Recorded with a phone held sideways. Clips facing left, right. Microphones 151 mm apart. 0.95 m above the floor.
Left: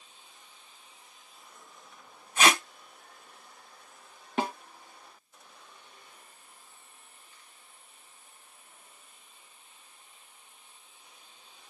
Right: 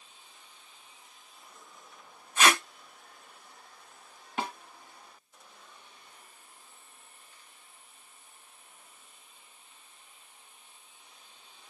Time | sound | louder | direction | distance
2.4 | tape being pulled | left 1 dB | 55° left (ahead or behind) | 1.7 m
4.4 | a snare drum | left 5 dB | 40° left (ahead or behind) | 1.1 m